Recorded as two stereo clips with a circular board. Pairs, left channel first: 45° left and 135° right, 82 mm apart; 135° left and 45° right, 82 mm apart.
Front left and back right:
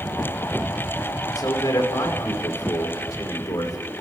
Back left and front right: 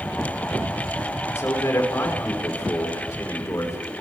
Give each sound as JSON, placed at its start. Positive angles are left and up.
{"t": 1.4, "sound": "a man speaking", "azimuth_deg": 80, "distance_m": 5.5}